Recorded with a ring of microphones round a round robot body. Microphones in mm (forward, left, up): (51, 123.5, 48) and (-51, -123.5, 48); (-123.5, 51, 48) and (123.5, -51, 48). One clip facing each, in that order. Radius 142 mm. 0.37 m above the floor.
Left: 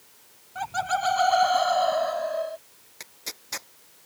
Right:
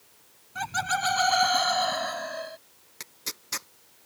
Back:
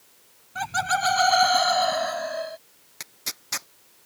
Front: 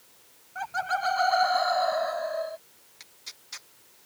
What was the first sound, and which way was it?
Laughter, 170° right.